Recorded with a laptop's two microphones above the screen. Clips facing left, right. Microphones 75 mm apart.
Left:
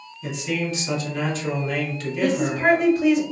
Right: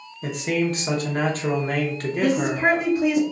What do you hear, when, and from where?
0.2 s a man speaking: 45° right (ahead or behind), 0.7 m
2.2 s a woman speaking: 5° right (ahead or behind), 1.4 m